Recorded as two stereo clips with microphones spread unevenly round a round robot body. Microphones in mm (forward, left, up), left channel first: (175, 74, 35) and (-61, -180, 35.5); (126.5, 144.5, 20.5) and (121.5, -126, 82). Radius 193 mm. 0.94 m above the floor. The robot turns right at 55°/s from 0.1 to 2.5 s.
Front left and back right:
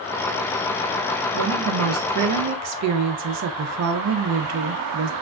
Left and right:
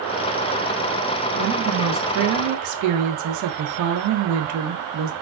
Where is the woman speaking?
165° right, 0.5 m; by 5.1 s 100° right, 0.5 m.